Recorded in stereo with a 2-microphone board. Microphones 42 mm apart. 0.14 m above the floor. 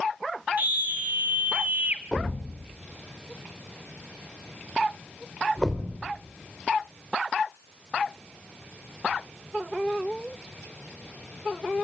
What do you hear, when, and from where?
0.6 s a scream: 45° right (ahead or behind), 1.9 m; by 2.0 s 40° right (ahead or behind), 2.5 m
2.1 s a thud: 5° left (ahead or behind), 3.5 m